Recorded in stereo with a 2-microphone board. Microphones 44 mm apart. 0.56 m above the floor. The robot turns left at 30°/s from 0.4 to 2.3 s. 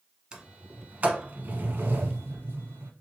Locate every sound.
0.3 s a sliding door: 20° right (ahead or behind), 0.7 m; by 2.9 s 60° right (ahead or behind), 0.7 m